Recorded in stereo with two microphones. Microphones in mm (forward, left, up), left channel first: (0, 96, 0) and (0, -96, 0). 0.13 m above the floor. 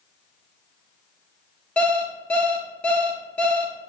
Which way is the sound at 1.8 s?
5° left (ahead or behind).